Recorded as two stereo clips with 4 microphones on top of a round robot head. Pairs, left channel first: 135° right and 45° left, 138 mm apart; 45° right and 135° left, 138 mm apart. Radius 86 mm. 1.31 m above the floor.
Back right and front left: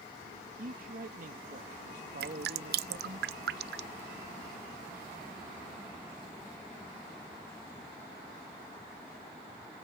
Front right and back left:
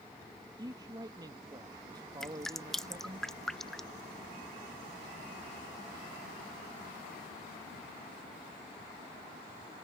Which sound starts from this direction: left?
A man speaking, at 0.6 s.